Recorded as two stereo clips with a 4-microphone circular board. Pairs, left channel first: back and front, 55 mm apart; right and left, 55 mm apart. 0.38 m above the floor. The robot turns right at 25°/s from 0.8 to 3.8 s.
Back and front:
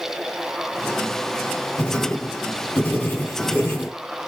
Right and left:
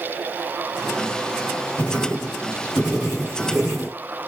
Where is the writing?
125° left, 1.8 m; by 4.0 s 175° left, 1.8 m.